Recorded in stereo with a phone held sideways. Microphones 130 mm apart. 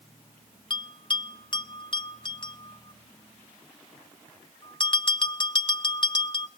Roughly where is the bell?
Left.